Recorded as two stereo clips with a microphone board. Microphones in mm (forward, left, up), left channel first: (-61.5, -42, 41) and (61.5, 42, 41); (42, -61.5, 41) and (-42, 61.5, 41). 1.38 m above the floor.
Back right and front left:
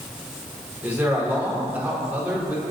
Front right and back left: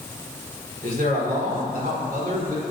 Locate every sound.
0.8 s a man speaking: 110° left, 4.5 m